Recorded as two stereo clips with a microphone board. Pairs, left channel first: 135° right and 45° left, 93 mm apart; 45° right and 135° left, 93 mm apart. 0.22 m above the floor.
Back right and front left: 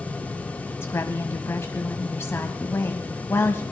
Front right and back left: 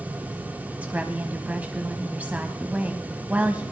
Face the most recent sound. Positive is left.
turn(degrees=-165)